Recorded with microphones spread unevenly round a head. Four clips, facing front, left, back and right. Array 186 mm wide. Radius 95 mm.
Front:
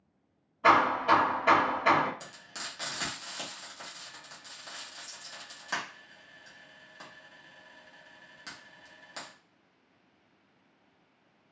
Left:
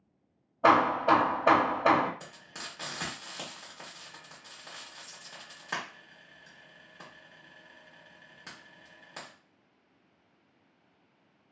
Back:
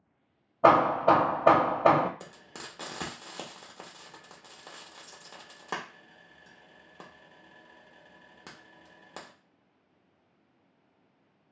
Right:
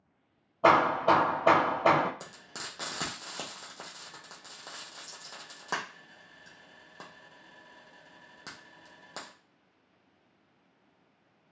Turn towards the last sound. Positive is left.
turn(degrees=-140)